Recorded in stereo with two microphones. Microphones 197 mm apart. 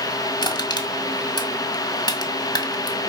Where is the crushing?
20° left (ahead or behind), 1.8 m.